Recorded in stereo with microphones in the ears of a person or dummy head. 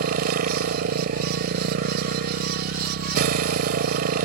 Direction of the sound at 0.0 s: 55° right (ahead or behind).